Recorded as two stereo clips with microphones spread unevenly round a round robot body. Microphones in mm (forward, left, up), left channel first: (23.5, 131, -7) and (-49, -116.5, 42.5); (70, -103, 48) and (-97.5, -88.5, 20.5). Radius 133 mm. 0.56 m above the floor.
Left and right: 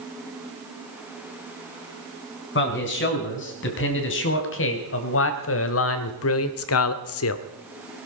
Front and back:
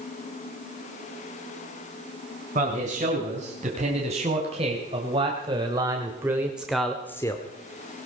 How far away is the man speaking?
About 4.5 m.